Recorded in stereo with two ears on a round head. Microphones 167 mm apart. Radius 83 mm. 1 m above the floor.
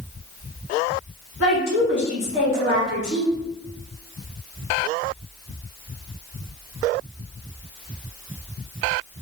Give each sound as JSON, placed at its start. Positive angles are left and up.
{"t": 1.4, "sound": "a woman speaking", "side_deg": 65, "distance_m": 1.7}